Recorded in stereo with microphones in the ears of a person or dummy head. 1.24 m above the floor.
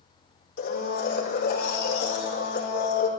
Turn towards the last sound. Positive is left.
turn(degrees=60)  # may be behind; listen again after turning